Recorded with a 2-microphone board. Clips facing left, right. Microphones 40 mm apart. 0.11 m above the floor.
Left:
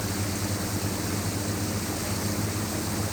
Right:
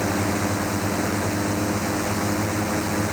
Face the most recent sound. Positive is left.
turn(degrees=-65)  # may be behind; listen again after turning